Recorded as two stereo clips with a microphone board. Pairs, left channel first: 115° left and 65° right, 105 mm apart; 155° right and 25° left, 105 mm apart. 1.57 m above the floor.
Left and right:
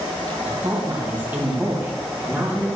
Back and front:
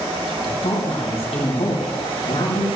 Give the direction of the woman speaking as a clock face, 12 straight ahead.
5 o'clock.